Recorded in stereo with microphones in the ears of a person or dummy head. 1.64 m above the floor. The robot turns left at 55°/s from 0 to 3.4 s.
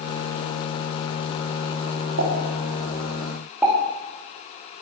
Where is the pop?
75° right (ahead or behind), 3.5 m; by 3.8 s 5° right (ahead or behind), 3.5 m.